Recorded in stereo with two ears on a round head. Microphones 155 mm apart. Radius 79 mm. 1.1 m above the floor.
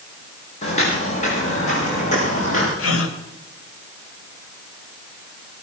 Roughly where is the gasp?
Left.